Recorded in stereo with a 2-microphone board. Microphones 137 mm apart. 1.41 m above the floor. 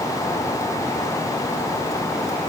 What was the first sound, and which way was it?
Only background noise.